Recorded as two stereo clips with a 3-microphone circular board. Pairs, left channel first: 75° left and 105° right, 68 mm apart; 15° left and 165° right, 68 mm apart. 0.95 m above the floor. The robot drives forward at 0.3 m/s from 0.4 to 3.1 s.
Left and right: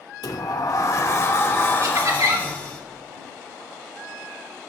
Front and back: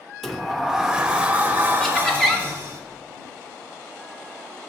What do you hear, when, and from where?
0.2 s a sliding door: 100° left, 0.6 m; by 2.8 s 145° left, 1.0 m
1.8 s laughter: 65° right, 2 m; by 2.5 s 70° right, 2 m